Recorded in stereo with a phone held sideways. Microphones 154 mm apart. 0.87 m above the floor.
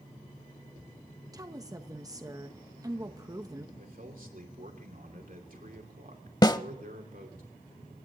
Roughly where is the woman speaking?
Right.